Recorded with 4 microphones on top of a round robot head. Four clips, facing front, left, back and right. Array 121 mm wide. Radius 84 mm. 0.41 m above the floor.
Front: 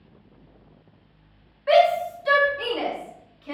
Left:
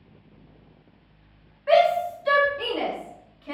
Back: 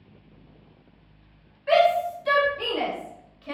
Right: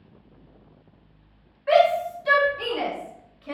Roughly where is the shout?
Ahead.